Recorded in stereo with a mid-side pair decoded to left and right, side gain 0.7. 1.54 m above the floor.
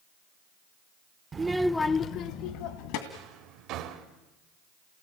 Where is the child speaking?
25° right, 1.1 m; by 3.0 s 75° left, 2 m.